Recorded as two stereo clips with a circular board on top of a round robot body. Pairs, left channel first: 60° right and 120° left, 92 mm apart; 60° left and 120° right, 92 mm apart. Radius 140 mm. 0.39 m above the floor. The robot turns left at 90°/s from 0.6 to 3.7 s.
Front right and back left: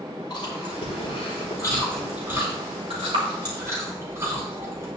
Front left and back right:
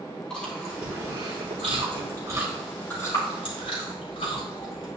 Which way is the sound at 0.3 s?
20° right.